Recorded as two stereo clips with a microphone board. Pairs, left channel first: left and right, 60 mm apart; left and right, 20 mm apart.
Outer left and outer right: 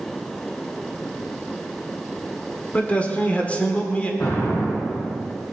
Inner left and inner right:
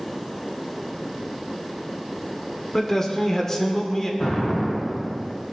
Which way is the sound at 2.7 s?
20° left (ahead or behind).